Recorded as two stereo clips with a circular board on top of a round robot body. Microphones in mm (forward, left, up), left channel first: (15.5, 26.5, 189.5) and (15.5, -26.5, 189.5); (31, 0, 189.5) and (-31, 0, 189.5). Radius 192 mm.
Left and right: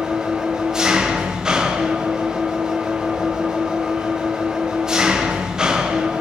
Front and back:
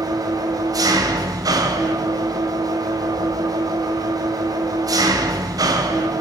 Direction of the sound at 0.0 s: 170° right.